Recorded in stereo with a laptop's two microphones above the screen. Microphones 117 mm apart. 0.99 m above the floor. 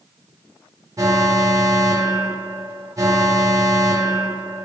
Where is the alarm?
30° right (ahead or behind), 1.2 m.